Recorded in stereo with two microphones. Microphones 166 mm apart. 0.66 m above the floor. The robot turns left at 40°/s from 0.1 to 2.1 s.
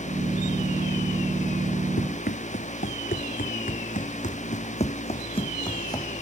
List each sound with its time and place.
2.0 s running footsteps: 70° left (ahead or behind); by 6.1 s 20° left (ahead or behind)